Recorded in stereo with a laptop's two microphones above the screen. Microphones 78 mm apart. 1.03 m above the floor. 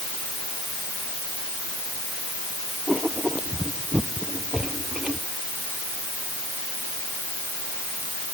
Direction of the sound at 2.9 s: 10° right (ahead or behind).